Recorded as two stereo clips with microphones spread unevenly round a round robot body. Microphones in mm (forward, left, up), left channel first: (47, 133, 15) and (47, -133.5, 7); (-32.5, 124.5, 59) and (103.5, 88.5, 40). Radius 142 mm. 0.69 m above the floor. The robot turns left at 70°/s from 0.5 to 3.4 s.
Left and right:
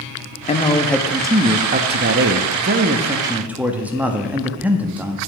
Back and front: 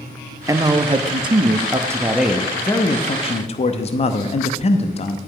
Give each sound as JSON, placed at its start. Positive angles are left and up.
{"t": 0.5, "sound": "a man speaking", "azimuth_deg": 35, "distance_m": 0.7}